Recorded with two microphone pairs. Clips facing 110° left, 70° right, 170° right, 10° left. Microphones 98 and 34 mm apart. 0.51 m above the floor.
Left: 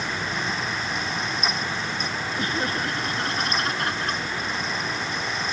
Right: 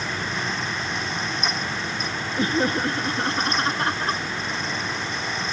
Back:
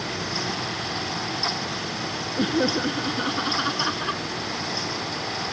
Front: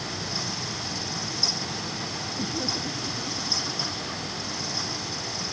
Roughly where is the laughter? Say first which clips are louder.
Right 6 dB, back 9 dB; behind right.